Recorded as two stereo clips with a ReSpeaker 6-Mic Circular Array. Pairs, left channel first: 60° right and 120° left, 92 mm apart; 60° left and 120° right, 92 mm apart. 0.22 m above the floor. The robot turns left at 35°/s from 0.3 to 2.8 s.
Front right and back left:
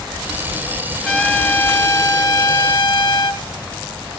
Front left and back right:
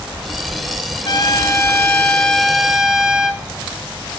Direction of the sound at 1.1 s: 25° left.